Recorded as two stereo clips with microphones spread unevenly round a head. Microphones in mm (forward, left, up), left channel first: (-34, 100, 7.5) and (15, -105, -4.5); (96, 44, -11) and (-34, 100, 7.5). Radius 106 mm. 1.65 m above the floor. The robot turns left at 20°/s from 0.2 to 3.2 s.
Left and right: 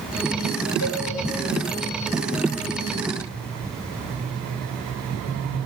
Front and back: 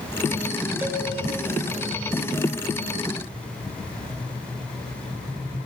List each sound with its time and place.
0.8 s a cowbell: 80° left, 1.6 m; by 1.1 s 75° left, 1.6 m